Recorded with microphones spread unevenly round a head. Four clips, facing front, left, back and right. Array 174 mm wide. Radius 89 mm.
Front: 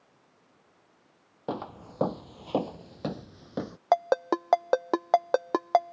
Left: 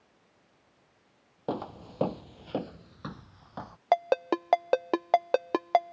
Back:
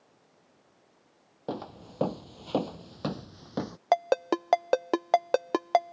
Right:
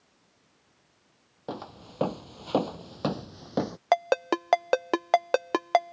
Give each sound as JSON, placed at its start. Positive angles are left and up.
{"t": 1.5, "sound": "footsteps", "azimuth_deg": 15}
{"t": 3.9, "sound": "a ringtone", "azimuth_deg": -15}